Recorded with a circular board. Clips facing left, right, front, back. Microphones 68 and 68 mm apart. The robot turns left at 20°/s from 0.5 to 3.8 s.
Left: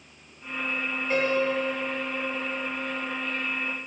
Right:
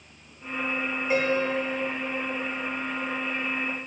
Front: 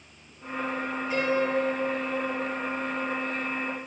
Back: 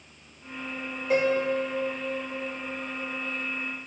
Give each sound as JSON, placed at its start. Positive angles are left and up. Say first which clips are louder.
{"t": 1.1, "sound": "a piano", "louder": "even, back 2 dB", "azimuth_deg": -165, "distance_m": 3.0}